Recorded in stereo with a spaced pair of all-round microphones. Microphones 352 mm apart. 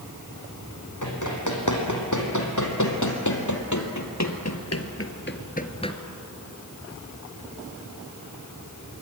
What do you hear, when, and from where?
1.0 s running footsteps: 55° left (ahead or behind), 4.5 m; by 6.0 s 10° left (ahead or behind), 1.4 m